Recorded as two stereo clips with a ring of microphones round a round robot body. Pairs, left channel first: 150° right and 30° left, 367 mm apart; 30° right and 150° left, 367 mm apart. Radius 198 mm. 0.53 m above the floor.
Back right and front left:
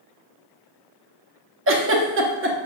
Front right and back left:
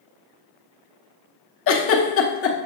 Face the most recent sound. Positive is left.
turn(degrees=-5)